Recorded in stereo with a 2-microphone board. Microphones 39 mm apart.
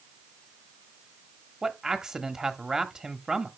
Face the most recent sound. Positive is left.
turn(degrees=-15)  # may be behind; listen again after turning